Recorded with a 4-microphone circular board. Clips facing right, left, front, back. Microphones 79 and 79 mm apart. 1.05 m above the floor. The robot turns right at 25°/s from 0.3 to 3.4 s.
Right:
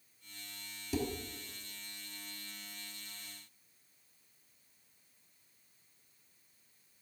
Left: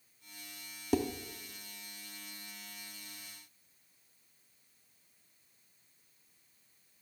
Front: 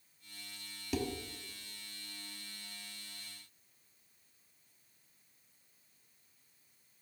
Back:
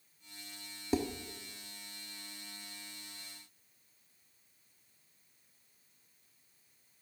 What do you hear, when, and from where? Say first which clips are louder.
0.9 s dishes clattering: left 5 dB, back 3 dB; 120° left, 1.3 m; by 1.1 s 125° left, 1.3 m